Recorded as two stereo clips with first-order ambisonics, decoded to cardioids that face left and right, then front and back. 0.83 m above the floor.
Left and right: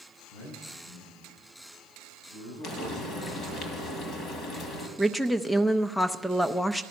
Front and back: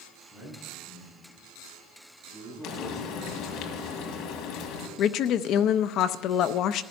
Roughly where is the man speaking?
Left.